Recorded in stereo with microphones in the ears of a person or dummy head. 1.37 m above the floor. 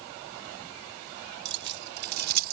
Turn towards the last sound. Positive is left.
turn(degrees=-50)  # may be behind; listen again after turning